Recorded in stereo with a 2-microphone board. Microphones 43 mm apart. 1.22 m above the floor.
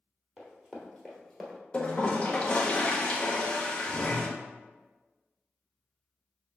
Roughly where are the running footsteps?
Centre.